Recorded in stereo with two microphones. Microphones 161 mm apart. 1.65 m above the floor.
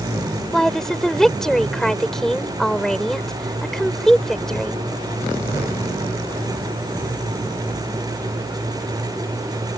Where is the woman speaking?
5° left (ahead or behind).